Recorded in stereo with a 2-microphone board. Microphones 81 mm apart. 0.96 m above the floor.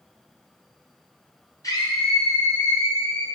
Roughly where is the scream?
Left.